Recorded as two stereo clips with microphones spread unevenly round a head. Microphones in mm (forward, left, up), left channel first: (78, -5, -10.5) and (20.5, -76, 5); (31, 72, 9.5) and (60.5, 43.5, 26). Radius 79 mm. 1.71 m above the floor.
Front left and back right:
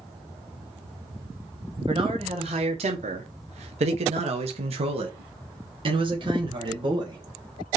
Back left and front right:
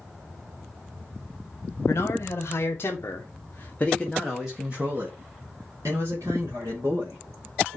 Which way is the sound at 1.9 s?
170° left.